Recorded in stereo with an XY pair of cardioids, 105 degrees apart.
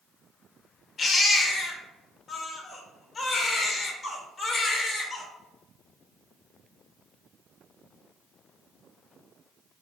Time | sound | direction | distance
1.0 | a baby crying | 40° left | 0.7 m